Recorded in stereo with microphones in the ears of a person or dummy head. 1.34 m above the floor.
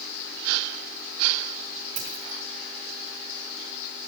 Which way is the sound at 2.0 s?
45° right (ahead or behind).